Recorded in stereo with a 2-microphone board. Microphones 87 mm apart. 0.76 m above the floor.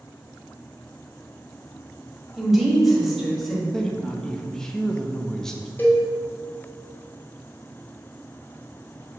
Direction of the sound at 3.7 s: 5° left (ahead or behind).